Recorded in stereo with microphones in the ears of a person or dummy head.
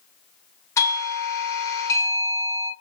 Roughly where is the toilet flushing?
I don't hear a toilet flushing.